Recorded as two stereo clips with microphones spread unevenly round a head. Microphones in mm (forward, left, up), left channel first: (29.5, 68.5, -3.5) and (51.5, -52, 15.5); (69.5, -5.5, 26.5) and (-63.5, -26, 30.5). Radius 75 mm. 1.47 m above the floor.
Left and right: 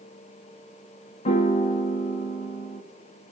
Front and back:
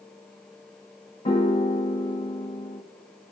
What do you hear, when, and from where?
1.2 s a piano: 65° left, 0.7 m